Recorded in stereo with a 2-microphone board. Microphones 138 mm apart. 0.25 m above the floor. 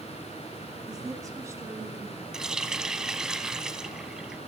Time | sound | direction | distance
0.9 | a woman speaking | 30° right (ahead or behind) | 2.5 m
2.3 | a running tap | 5° right (ahead or behind) | 1.3 m